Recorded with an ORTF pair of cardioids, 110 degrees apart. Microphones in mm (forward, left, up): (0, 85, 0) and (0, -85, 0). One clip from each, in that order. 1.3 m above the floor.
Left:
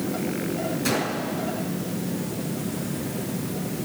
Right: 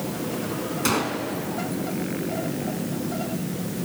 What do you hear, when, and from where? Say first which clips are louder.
0.8 s a gunshot: right 3 dB; 50° right, 4 m